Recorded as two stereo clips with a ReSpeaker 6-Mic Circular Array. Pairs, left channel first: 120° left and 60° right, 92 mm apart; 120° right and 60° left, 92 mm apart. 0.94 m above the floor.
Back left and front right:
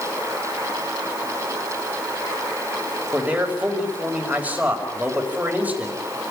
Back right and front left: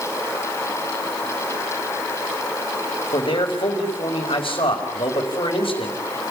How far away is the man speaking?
About 5 m.